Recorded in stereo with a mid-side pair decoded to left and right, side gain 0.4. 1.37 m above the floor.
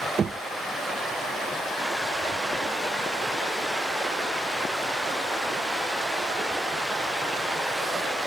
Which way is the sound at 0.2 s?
45° right.